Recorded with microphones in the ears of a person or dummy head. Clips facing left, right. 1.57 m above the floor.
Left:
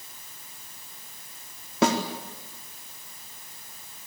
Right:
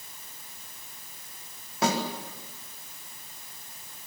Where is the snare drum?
75° left (ahead or behind), 4 m.